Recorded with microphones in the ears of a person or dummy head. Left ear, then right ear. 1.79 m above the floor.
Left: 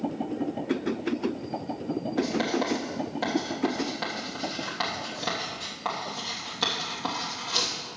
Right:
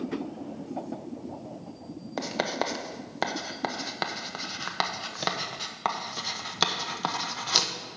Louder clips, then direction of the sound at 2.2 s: Left 1 dB; 60° right (ahead or behind).